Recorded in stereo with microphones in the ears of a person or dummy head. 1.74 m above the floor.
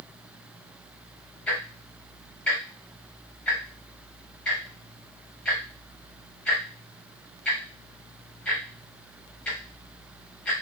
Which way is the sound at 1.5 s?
5° left (ahead or behind).